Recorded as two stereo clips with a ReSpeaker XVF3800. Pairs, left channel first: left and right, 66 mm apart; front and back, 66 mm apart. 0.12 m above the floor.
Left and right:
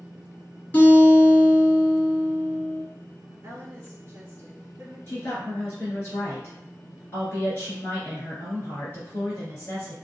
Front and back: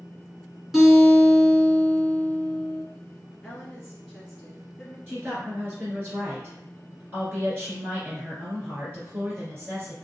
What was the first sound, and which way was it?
A guitar, 105° left.